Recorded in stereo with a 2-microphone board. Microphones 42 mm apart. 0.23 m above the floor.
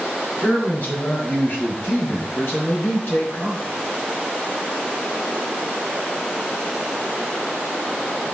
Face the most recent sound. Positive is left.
turn(degrees=65)  # may be behind; listen again after turning